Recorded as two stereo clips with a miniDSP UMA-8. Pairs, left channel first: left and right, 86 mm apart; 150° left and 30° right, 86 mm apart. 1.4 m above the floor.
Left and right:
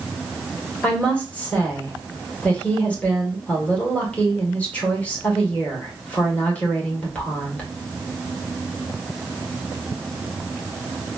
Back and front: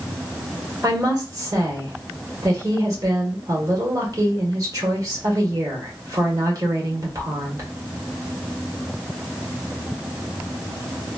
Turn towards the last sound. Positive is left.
turn(degrees=20)